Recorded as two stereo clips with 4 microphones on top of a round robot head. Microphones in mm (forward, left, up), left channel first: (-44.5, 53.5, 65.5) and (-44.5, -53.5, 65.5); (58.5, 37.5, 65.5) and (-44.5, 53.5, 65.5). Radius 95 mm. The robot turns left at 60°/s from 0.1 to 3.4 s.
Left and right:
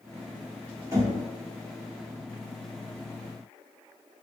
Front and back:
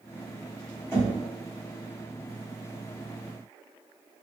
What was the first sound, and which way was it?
Knocking, 55° right.